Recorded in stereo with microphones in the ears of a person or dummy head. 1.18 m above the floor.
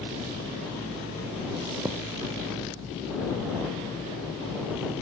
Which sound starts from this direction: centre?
A thud, at 1.9 s.